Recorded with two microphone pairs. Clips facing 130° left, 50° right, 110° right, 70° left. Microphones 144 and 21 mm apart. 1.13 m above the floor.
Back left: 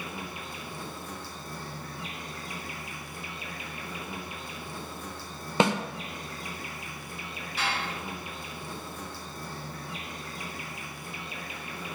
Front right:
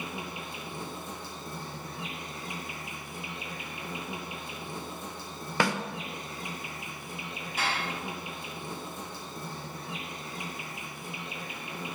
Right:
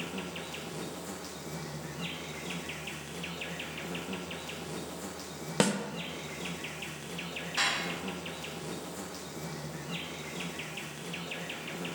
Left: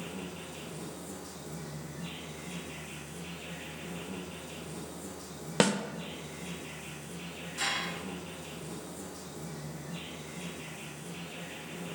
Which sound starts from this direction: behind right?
An insect, at 0.0 s.